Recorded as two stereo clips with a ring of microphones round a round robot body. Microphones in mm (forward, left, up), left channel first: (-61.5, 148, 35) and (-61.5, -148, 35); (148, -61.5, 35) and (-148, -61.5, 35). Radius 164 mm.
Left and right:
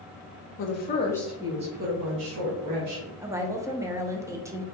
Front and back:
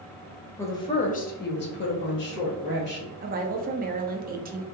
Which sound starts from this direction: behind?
A woman speaking, at 3.2 s.